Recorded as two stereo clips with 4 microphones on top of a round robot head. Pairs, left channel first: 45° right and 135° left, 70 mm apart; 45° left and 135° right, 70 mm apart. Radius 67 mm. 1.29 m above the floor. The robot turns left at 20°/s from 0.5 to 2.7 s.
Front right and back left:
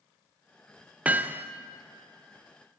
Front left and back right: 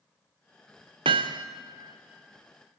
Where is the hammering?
150° right, 0.5 m; by 1.5 s 160° right, 0.5 m.